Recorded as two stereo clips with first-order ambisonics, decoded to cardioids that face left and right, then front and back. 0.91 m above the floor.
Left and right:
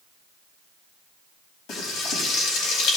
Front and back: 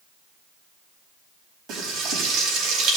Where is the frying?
130° left, 4.5 m.